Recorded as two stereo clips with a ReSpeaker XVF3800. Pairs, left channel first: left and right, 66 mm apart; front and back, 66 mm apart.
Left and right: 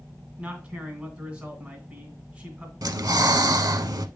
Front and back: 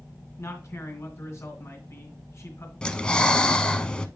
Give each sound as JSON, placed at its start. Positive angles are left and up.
{"t": 0.4, "sound": "a man speaking", "azimuth_deg": -25, "distance_m": 2.0}
{"t": 2.8, "sound": "breathing", "azimuth_deg": -75, "distance_m": 0.6}